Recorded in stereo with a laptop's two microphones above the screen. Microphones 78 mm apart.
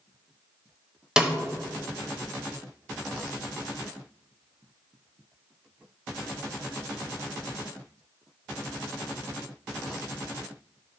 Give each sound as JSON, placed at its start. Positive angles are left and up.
{"t": 1.2, "sound": "a snare drum", "side_deg": -10, "distance_m": 1.3}